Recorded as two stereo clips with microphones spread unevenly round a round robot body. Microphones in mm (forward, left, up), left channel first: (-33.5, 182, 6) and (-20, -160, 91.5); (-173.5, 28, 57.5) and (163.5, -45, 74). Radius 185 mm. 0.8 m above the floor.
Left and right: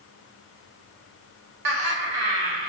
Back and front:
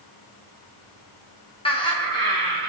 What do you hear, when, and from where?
1.6 s laughter: 120° right, 1.7 m; by 2.7 s 110° right, 2.5 m